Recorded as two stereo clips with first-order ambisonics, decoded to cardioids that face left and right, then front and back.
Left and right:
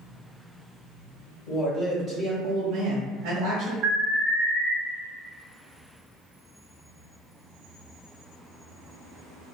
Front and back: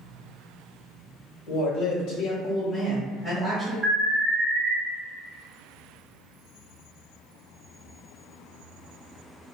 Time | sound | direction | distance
1.5 | a woman speaking | 20° left | 1.0 m
3.8 | an alarm | 110° right | 1.7 m